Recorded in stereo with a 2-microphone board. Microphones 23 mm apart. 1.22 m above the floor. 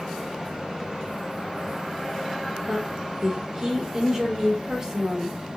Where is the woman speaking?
20° right (ahead or behind), 3 m.